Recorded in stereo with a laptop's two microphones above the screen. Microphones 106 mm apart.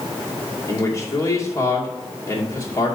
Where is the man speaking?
30° left (ahead or behind), 2 m.